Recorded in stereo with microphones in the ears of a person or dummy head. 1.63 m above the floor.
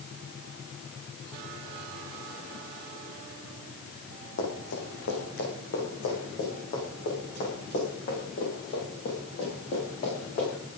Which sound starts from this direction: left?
Running footsteps, at 4.4 s.